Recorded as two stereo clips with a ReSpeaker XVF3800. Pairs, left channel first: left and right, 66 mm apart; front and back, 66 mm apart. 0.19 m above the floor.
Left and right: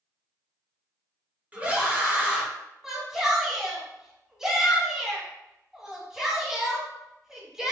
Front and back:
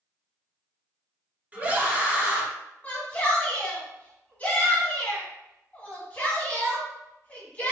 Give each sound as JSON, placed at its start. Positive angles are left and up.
{"t": 1.5, "sound": "a scream", "azimuth_deg": -140, "distance_m": 1.1}
{"t": 2.8, "sound": "a shout", "azimuth_deg": -20, "distance_m": 1.4}